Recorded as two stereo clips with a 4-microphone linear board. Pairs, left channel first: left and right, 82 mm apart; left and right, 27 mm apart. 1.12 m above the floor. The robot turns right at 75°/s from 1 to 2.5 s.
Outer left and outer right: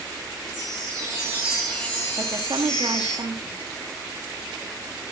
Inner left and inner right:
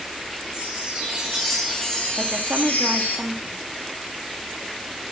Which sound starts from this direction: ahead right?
A chime, at 0.5 s.